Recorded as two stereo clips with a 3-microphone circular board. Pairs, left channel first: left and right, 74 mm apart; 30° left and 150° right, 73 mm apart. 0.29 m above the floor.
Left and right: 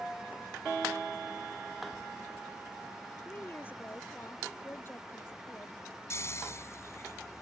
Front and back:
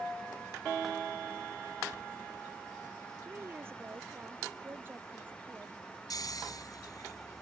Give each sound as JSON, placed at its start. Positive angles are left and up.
{"t": 3.2, "sound": "a woman speaking", "azimuth_deg": 155}
{"t": 6.1, "sound": "snoring", "azimuth_deg": 45}